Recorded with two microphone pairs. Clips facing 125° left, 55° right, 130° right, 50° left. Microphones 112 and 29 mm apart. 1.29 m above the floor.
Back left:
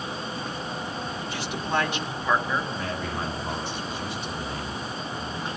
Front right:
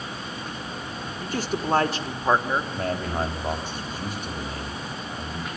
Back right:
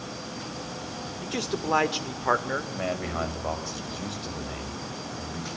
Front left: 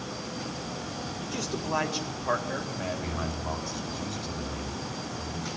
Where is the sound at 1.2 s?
95° right, 3 m; by 2.6 s 115° right, 3.5 m.